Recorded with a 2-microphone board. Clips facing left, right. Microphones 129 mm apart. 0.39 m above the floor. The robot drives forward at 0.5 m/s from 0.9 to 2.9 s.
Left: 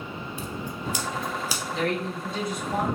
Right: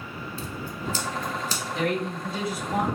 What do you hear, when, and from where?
0.4 s scissors: 15° left (ahead or behind), 0.5 m; by 1.6 s 10° left (ahead or behind), 0.9 m
1.7 s a man speaking: 5° right (ahead or behind), 1.8 m